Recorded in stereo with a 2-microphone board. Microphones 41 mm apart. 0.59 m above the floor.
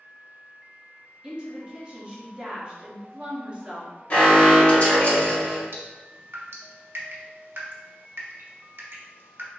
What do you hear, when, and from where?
1.2 s a woman speaking: 25° right (ahead or behind), 1.5 m
4.1 s an alarm: 35° left (ahead or behind), 1.9 m
5.7 s dripping: 75° right (ahead or behind), 1.1 m